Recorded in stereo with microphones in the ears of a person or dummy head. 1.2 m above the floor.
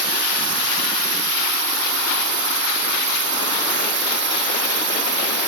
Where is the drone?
60° right (ahead or behind).